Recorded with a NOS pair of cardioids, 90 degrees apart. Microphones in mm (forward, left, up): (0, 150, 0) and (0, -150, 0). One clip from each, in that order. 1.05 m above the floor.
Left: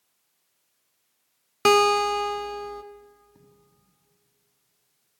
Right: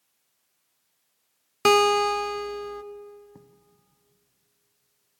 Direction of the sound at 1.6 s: Straight ahead.